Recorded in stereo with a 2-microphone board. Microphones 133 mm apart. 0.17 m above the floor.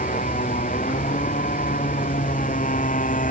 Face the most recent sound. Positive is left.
turn(degrees=85)